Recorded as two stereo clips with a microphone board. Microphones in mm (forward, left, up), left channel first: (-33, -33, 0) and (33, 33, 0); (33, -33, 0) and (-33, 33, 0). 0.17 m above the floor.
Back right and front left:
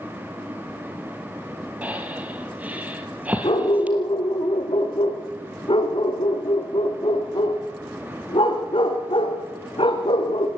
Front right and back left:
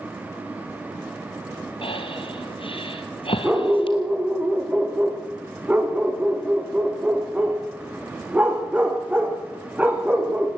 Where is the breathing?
30° right, 2.5 m.